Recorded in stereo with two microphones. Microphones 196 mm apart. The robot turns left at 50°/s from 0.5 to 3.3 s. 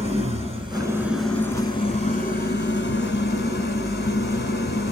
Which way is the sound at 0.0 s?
145° right.